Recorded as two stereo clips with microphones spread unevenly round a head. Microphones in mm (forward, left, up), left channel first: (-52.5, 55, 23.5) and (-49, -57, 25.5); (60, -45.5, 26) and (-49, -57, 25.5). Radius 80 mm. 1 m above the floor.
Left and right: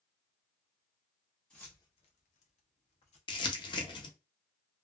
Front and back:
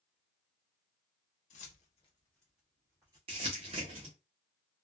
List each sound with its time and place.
1.5 s keys jangling: 5° left, 0.9 m; by 3.2 s 120° left, 1.6 m
3.3 s crumpling: 135° left, 0.8 m